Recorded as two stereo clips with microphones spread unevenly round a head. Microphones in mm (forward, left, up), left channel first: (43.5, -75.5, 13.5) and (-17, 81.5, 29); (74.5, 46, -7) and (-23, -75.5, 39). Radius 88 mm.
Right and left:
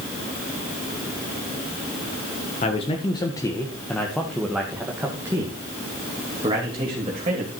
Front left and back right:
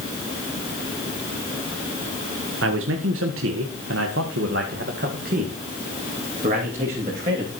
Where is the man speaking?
125° right, 1.7 m; by 7.5 s 170° left, 3.5 m.